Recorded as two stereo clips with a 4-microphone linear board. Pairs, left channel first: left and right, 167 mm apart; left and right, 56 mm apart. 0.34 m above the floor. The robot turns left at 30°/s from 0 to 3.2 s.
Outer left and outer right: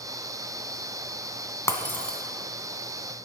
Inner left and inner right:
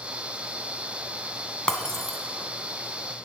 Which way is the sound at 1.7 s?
20° left (ahead or behind).